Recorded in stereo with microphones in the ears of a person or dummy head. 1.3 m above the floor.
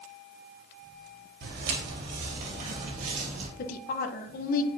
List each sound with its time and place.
1.4 s footsteps: 60° right (ahead or behind), 2.5 m; by 3.5 s 45° right (ahead or behind), 2.5 m
3.6 s a woman speaking: 45° left (ahead or behind), 0.9 m